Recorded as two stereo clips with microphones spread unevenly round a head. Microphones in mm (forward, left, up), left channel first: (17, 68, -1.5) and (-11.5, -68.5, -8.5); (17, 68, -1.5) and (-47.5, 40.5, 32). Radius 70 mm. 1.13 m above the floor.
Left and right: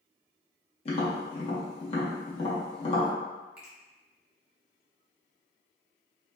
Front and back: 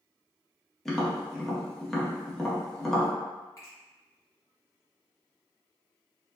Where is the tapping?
60° left, 0.8 m.